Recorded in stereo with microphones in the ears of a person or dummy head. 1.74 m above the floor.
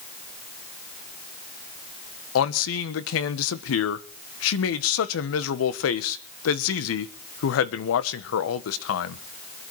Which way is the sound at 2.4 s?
75° left (ahead or behind).